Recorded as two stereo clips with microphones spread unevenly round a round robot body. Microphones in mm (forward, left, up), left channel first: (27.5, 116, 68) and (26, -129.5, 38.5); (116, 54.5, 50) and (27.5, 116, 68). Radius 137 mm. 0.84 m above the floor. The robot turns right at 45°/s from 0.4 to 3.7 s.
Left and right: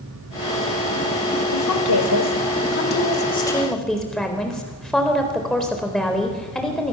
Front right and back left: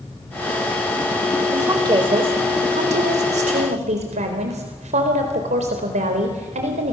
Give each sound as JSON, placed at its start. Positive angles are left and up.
{"t": 1.5, "sound": "a woman speaking", "azimuth_deg": 80, "distance_m": 4.0}